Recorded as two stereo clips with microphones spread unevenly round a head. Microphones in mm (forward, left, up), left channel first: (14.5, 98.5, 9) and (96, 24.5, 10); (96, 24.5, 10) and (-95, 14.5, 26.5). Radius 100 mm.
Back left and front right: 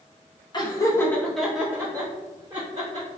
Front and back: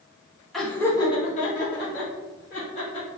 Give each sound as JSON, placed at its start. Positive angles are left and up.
{"t": 0.5, "sound": "laughter", "azimuth_deg": 90, "distance_m": 1.0}